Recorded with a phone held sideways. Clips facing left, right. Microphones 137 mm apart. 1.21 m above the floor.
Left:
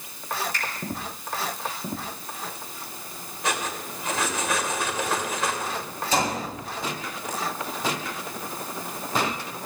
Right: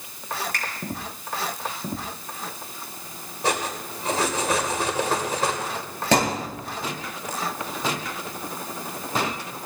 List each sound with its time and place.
0.5 s a finger snap: 60° right (ahead or behind), 6 m
3.4 s cutlery clinking: 35° right (ahead or behind), 2.5 m
6.1 s a thud: 70° right (ahead or behind), 9 m